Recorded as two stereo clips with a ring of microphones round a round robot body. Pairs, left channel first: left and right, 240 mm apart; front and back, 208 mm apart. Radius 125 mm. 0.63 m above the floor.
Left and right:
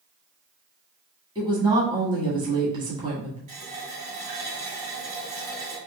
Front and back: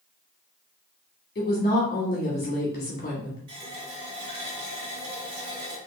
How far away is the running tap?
About 1.9 m.